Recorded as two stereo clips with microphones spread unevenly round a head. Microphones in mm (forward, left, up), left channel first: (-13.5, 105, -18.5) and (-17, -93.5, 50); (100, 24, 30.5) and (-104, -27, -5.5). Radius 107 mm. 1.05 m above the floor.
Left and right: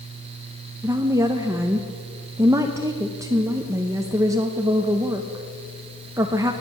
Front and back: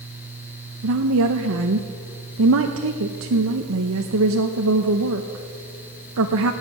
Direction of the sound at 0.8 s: 170° right.